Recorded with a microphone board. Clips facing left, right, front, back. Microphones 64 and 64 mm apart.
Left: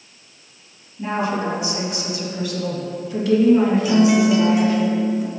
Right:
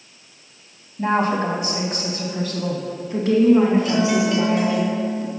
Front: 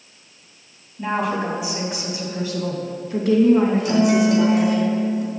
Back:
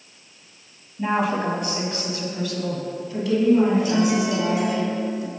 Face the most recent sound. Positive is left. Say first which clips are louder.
# left 4 dB, front 4 dB
turn(degrees=5)